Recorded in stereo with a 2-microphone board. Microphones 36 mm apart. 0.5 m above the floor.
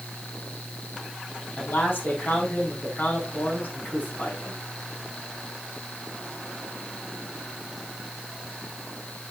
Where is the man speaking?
60° left (ahead or behind), 4.5 m.